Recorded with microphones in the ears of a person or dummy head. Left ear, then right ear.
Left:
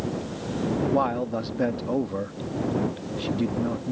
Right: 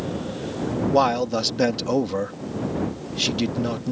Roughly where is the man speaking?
Right.